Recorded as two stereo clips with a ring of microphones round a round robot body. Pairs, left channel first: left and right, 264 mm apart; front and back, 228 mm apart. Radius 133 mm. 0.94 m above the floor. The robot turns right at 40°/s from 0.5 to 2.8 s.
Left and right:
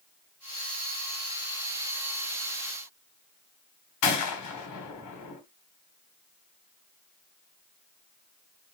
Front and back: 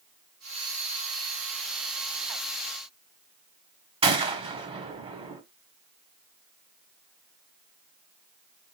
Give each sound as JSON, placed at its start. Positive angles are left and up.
{"t": 4.0, "sound": "a gunshot", "azimuth_deg": 115, "distance_m": 1.3}